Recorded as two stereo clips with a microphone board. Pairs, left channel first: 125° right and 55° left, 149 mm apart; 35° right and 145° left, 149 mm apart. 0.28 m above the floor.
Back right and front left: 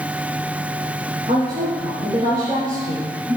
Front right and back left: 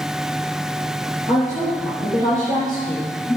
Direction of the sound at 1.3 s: Straight ahead.